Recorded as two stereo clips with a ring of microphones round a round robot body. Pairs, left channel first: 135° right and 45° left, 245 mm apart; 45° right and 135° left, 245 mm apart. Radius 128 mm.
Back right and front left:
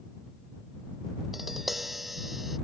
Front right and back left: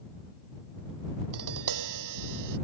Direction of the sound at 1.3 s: 135° left.